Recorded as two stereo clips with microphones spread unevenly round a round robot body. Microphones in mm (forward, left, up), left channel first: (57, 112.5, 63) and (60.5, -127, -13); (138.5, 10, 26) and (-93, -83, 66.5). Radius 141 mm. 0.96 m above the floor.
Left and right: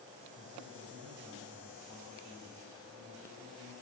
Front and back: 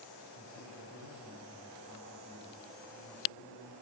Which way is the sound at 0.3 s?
160° right.